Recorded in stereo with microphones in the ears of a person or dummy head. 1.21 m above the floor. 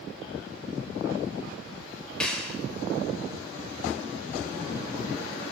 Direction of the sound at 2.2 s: 5° left (ahead or behind).